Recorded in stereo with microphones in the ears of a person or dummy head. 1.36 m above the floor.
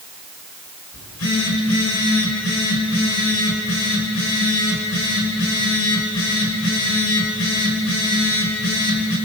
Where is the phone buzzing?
85° left, 6 m.